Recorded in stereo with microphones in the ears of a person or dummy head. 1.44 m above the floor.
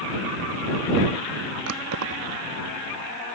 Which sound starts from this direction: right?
Keys jangling, at 1.7 s.